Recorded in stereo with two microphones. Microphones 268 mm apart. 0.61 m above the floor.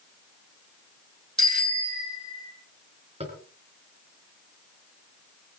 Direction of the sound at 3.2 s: 25° right (ahead or behind).